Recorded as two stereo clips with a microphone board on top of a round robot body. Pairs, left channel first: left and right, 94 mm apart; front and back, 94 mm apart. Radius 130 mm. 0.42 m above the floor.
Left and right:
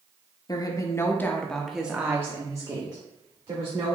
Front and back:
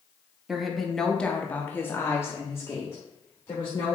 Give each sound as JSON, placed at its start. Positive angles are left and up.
{"t": 0.5, "sound": "a woman speaking", "azimuth_deg": 95, "distance_m": 1.1}